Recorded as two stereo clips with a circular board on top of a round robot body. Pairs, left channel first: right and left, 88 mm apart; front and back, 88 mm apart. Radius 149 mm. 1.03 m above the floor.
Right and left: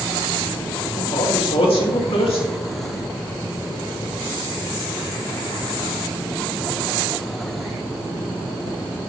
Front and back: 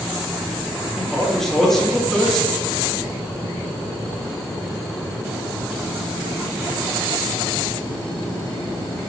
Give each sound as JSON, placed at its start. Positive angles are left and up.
{"t": 1.0, "sound": "a man speaking", "azimuth_deg": -85, "distance_m": 2.5}